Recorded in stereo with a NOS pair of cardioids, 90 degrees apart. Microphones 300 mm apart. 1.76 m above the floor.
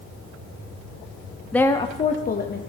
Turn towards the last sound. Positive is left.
turn(degrees=35)